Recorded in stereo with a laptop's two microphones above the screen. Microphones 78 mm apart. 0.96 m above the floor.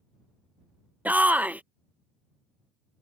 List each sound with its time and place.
1.1 s a shout: 20° right (ahead or behind)